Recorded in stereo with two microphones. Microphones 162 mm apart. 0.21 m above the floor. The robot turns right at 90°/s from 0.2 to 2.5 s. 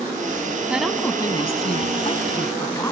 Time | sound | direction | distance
0.7 | a woman speaking | 15° right | 1.4 m